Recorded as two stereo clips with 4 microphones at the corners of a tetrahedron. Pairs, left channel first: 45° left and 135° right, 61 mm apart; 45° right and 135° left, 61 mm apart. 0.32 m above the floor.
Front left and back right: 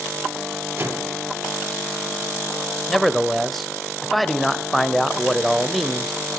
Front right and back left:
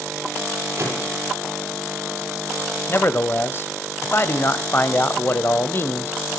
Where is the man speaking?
45° right, 1.2 m.